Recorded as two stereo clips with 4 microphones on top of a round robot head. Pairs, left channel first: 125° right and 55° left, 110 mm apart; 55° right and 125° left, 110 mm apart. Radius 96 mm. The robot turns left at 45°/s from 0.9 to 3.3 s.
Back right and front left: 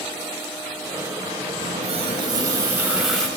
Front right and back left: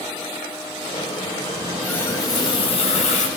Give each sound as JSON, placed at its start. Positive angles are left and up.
{"t": 1.6, "sound": "a running tap", "azimuth_deg": 30, "distance_m": 7.5}